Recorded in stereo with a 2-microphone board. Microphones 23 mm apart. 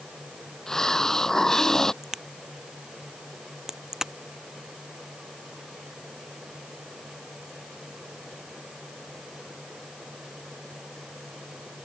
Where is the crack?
25° right (ahead or behind).